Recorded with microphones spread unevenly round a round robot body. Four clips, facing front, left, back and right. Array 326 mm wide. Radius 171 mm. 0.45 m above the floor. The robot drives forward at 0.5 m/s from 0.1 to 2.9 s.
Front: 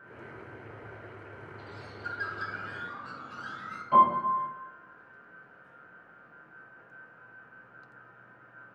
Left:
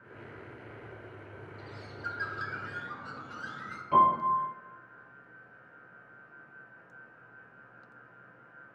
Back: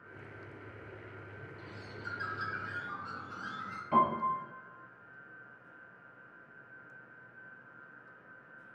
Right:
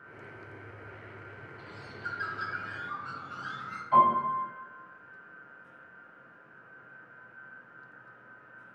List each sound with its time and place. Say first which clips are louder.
1.6 s a bird: even, front 4 dB; 115° left, 1.3 m; by 3.8 s 140° left, 1.6 m
3.9 s a piano: right 1 dB, front 7 dB; 140° left, 3 m